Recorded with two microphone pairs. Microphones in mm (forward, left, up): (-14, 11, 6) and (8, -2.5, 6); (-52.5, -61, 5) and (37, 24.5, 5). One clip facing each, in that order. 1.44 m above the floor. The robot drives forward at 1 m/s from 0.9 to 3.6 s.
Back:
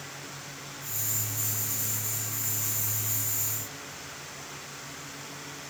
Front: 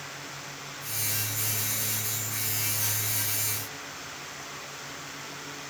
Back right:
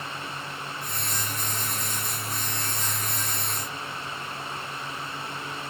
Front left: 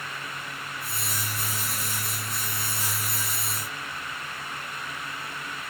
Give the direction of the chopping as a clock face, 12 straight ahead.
No chopping in this recording.